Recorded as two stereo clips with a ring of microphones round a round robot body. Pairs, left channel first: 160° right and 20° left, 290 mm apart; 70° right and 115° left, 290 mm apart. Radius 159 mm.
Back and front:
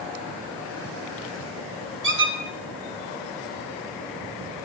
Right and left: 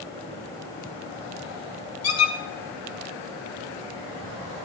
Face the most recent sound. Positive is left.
turn(degrees=-30)